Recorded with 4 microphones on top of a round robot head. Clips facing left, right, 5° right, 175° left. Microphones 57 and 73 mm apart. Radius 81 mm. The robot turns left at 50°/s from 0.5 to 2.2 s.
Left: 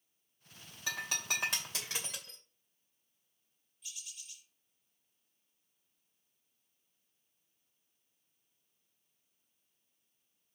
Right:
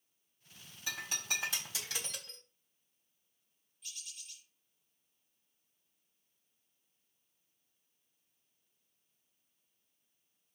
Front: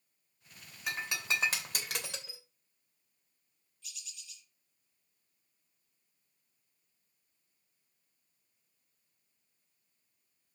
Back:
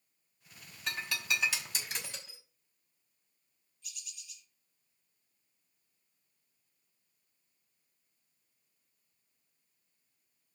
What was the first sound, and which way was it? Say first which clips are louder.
Breaking glass: left 2 dB, even; 80° left.